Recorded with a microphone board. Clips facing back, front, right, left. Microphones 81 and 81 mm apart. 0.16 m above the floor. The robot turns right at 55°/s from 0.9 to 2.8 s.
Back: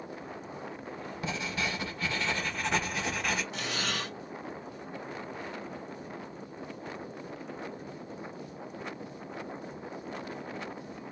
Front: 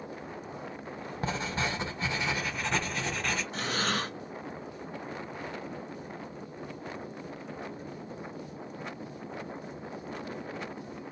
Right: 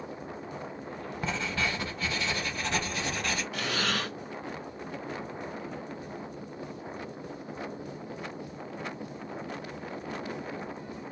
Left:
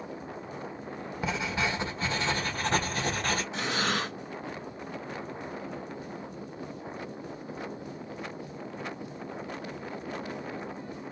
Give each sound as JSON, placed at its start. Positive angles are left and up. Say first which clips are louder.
{"t": 1.2, "sound": "writing", "louder": "front 2 dB, left 2 dB", "azimuth_deg": 10, "distance_m": 1.1}
{"t": 3.5, "sound": "breathing", "louder": "front 3 dB, left 1 dB", "azimuth_deg": 30, "distance_m": 1.1}